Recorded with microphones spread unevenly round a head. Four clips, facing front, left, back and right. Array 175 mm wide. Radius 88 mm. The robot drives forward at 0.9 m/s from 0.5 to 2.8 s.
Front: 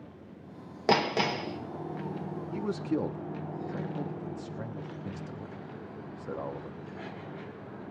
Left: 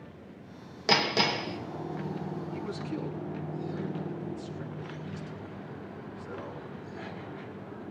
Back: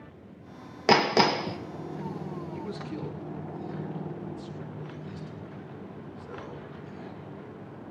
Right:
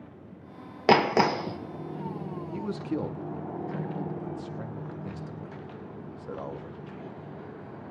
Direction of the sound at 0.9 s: 110° right.